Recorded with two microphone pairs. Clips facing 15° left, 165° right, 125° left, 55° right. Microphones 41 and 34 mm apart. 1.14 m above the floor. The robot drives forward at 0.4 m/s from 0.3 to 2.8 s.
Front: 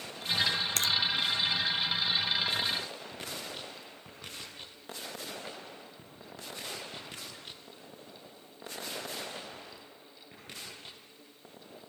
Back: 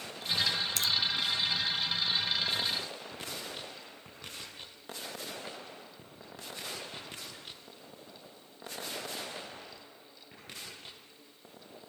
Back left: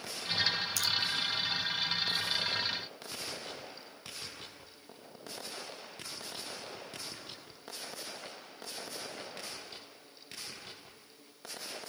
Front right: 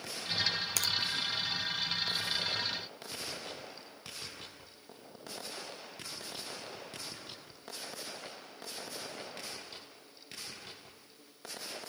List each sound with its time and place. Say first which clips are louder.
0.8 s a finger snap: front 2 dB, back left 1 dB; 20° right, 1.0 m; by 0.9 s 25° right, 1.0 m